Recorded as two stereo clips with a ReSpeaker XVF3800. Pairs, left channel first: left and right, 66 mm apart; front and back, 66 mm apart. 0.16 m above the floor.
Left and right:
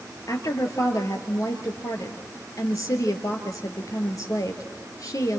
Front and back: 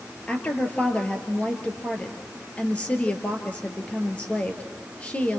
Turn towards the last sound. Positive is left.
turn(degrees=65)